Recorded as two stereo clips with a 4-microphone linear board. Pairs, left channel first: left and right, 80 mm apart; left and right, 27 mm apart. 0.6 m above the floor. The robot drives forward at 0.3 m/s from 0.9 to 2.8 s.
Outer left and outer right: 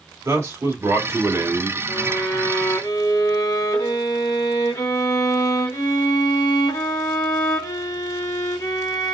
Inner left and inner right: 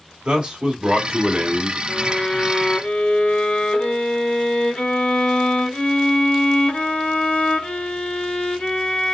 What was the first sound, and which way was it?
A man speaking, 40° right (ahead or behind).